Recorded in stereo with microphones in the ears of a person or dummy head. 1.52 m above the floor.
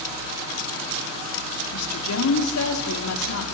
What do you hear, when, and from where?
1.7 s a woman speaking: 90° left, 4 m